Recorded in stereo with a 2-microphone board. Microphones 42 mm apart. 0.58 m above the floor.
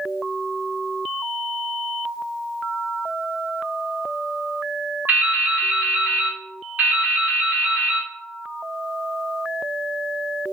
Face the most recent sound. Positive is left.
turn(degrees=-45)  # may be behind; listen again after turning